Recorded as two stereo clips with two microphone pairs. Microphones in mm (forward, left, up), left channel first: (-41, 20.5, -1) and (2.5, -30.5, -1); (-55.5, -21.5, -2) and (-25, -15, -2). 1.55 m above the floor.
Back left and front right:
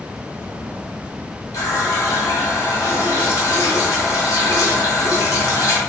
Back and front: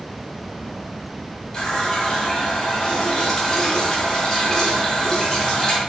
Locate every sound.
1.5 s a running tap: 130° left, 2 m